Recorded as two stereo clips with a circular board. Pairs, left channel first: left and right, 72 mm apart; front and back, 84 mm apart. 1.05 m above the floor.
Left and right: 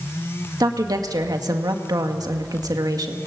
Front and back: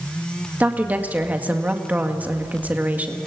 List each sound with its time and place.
0.6 s a woman speaking: 110° right, 1.9 m